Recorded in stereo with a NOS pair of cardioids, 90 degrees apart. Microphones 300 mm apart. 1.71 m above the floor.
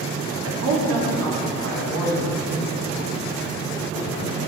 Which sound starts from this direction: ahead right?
A man speaking, at 0.4 s.